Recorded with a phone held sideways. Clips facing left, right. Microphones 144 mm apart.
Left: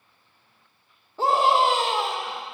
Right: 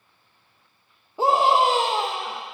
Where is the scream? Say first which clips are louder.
Right 1 dB; 15° right (ahead or behind), 0.9 m.